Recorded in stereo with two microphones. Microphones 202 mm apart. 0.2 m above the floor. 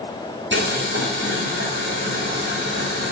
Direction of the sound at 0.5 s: 65° right (ahead or behind).